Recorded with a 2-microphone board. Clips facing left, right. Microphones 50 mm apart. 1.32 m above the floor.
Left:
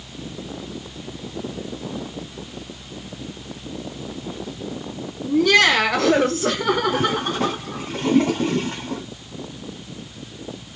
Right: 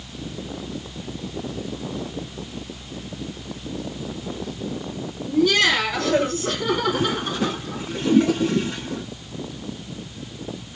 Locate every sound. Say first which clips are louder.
5.2 s laughter: left 3 dB; 55° left (ahead or behind), 1.9 m; by 7.9 s 40° left (ahead or behind), 2 m
6.9 s a toilet flushing: left 2 dB; 55° left (ahead or behind), 2.5 m